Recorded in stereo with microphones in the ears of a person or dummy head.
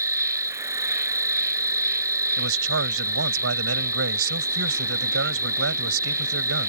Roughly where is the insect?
Centre.